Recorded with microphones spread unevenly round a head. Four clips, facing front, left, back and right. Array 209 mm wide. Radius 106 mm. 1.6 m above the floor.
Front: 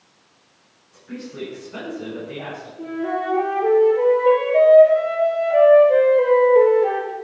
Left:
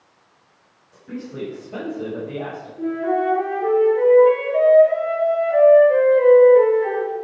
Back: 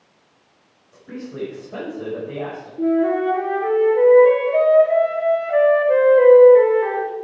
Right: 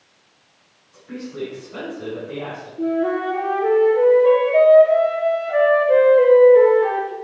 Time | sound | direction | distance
0.9 | a woman speaking | 145° left | 7.5 m
2.8 | a flute | 165° right | 4 m